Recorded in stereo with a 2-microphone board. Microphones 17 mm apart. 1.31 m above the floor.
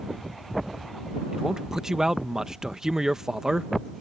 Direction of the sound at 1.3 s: 40° right (ahead or behind).